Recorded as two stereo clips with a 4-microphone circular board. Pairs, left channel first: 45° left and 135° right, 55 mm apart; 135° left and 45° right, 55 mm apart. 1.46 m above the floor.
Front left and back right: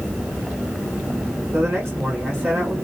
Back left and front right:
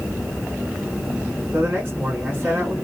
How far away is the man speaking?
About 3 m.